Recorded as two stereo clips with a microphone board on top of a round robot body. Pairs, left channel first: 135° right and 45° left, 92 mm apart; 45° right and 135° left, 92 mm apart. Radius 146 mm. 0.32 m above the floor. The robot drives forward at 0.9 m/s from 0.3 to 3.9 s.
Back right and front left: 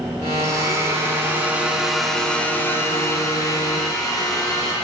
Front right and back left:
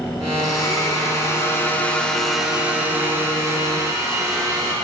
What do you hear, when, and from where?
0.4 s a blender: 5° right, 2.0 m; by 4.7 s 175° right, 1.9 m